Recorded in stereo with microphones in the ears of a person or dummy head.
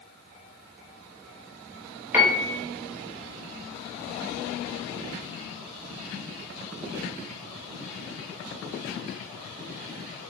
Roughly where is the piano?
Centre.